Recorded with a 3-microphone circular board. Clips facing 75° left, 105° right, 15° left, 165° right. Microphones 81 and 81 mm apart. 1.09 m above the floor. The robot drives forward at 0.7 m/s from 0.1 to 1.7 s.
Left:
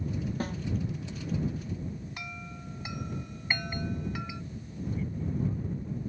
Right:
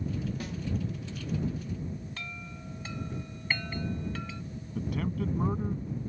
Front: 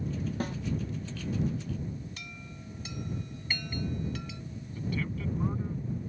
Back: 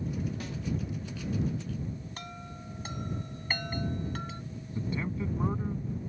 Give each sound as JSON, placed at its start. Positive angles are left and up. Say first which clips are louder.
{"t": 0.4, "sound": "a snare drum", "louder": "left 4 dB, front 5 dB", "azimuth_deg": 40}
{"t": 2.2, "sound": "a chime", "louder": "left 1 dB, back 3 dB", "azimuth_deg": 150}
{"t": 4.8, "sound": "a man speaking", "louder": "right 3 dB, back 1 dB", "azimuth_deg": -100}